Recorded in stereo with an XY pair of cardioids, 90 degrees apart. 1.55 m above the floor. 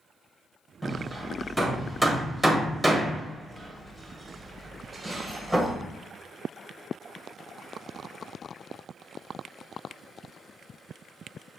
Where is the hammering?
5° left, 1.5 m.